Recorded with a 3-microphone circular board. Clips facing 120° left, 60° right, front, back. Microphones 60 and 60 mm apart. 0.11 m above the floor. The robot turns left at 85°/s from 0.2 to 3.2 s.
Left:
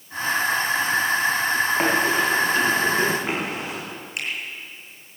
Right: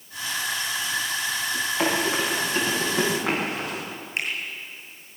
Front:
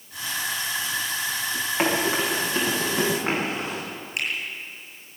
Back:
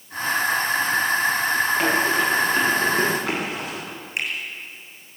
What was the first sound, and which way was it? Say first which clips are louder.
Running footsteps: even, back 3 dB; 70° left.